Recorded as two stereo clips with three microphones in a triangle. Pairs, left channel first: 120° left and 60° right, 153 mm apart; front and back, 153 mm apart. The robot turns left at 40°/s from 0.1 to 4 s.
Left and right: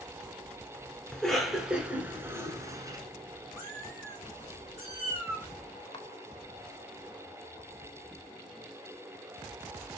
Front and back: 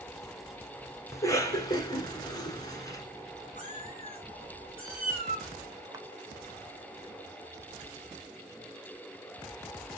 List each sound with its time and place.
1.1 s a cough: 40° left, 1.1 m; by 3.0 s 35° right, 1.1 m
3.6 s a cat meowing: 25° left, 3.5 m; by 5.5 s 10° left, 3.5 m
5.9 s a camera shutter: 135° left, 0.5 m